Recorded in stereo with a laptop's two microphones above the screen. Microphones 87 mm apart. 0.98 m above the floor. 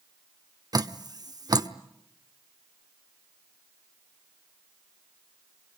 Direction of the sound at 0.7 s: 50° right (ahead or behind).